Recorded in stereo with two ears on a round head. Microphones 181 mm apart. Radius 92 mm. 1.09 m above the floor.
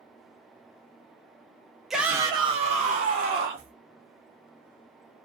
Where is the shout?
Centre (ahead or behind), 0.6 m; by 3.7 s 55° right (ahead or behind), 1.2 m.